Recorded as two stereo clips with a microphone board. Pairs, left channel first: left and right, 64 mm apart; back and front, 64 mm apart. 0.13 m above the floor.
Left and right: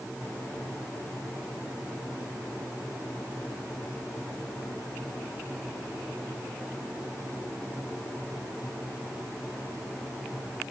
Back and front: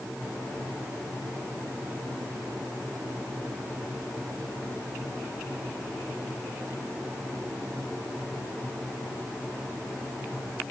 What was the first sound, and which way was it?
Only background noise.